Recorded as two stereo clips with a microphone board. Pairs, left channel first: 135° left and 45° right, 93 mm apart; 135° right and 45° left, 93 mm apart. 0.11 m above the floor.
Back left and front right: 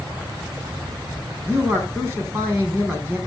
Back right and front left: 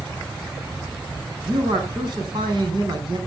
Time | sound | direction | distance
1.4 | a man speaking | 10° left | 5 m